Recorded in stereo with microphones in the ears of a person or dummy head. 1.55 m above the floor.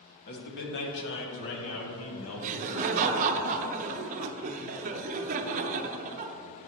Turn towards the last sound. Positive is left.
turn(degrees=-40)  # may be behind; listen again after turning